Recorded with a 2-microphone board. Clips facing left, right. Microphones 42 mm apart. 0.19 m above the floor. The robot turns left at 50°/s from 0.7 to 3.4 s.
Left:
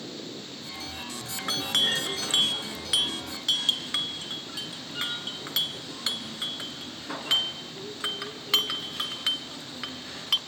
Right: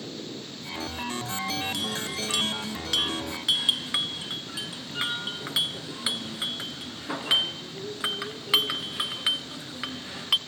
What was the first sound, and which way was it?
A clink, 65° left (ahead or behind).